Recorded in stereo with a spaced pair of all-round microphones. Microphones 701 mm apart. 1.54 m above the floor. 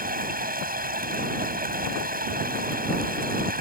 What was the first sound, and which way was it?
Running water, 10° right (ahead or behind).